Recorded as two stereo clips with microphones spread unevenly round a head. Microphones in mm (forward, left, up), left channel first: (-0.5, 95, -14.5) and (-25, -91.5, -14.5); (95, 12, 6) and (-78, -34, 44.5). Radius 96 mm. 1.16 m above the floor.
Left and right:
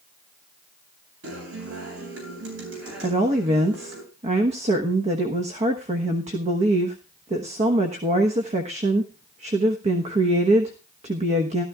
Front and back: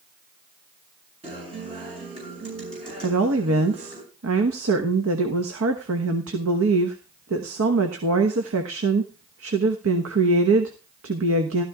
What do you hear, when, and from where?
1.2 s a guitar: 105° right, 8 m
3.0 s a woman speaking: 155° right, 1.2 m